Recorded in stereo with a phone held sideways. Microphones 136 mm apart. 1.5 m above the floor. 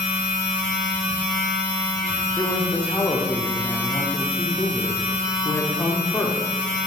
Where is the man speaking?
15° left (ahead or behind), 0.5 m.